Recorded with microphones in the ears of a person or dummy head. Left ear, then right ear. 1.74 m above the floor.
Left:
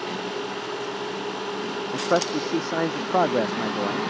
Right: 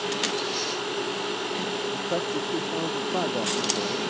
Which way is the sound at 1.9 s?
60° left (ahead or behind).